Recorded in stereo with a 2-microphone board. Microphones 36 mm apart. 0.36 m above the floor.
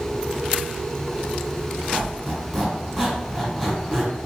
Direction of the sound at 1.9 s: Centre (ahead or behind).